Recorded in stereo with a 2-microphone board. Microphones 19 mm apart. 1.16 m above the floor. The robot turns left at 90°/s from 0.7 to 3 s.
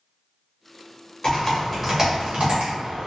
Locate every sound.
1.2 s typing on a keyboard: 40° left (ahead or behind), 1.1 m; by 3.1 s 60° right (ahead or behind), 1.1 m